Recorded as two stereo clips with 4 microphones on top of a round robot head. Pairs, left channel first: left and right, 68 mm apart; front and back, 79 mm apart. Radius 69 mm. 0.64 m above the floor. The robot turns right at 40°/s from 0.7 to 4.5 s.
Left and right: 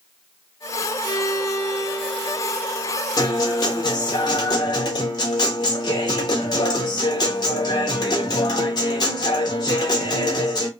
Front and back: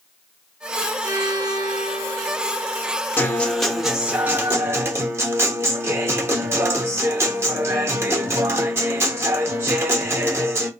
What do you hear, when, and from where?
1.0 s a violin: 125° left, 0.7 m; by 3.0 s 160° right, 0.7 m
3.2 s a guitar: 65° left, 0.9 m; by 10.7 s 120° left, 0.9 m